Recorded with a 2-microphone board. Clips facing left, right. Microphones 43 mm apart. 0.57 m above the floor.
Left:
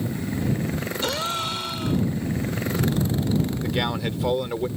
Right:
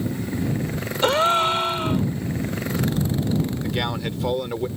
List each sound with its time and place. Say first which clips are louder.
1.0 s a gasp: right 11 dB; 35° right (ahead or behind)
3.6 s a man speaking: even; 5° left (ahead or behind)